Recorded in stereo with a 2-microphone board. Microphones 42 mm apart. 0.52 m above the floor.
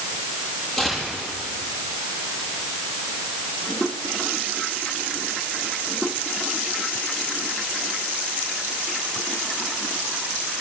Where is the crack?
I don't hear a crack.